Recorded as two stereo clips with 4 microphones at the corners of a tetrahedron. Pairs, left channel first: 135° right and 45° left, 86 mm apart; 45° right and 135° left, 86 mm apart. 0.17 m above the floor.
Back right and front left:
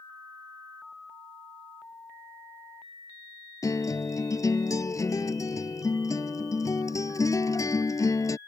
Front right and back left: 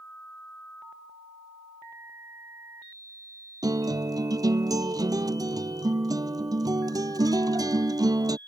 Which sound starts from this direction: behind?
A guitar, at 3.6 s.